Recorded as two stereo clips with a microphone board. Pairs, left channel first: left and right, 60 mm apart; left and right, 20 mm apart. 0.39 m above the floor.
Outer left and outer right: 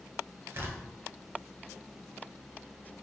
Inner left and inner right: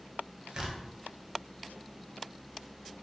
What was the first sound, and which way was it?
Tearing paper, 40° right (ahead or behind).